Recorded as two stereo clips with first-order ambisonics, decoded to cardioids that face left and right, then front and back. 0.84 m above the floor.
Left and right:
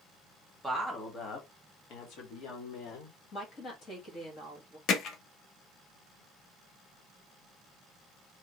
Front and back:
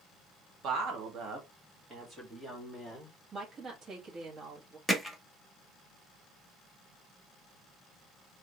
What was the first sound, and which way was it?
A woman speaking, 170° right.